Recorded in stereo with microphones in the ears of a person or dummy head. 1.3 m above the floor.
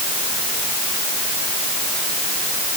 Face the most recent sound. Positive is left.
No sound to turn to.